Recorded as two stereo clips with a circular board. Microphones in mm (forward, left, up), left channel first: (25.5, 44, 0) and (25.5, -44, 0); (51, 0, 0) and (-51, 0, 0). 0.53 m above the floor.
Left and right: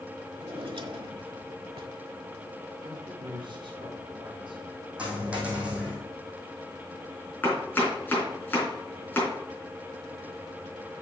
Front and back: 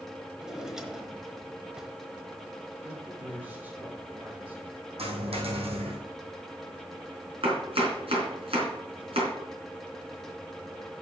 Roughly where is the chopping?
Behind.